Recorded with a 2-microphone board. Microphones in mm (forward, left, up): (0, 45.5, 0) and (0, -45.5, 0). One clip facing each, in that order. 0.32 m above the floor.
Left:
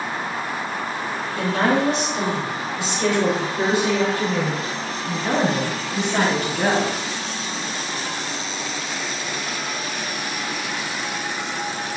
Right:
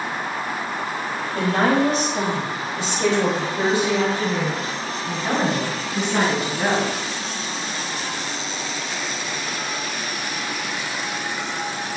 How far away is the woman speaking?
About 2 m.